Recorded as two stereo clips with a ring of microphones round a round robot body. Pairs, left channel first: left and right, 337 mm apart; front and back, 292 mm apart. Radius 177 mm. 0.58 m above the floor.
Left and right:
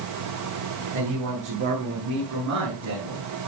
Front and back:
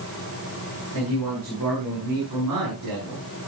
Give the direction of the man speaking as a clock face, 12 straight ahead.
5 o'clock.